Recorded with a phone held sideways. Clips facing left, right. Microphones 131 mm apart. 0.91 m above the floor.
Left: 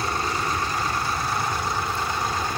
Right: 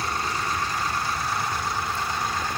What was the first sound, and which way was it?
An aircraft, 25° left (ahead or behind).